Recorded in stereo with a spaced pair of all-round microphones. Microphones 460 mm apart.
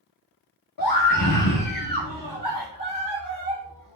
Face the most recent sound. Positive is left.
turn(degrees=45)  # may be behind; listen again after turning